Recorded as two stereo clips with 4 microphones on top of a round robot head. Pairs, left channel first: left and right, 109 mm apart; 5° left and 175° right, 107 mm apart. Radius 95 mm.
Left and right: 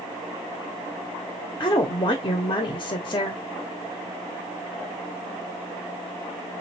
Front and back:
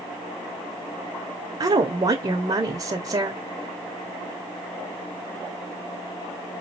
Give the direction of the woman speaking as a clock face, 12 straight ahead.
7 o'clock.